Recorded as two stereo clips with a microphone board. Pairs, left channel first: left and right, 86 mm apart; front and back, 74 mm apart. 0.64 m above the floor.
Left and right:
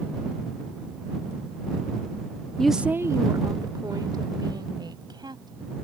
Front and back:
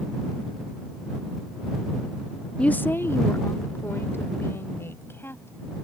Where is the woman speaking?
35° left; by 5.8 s 60° right.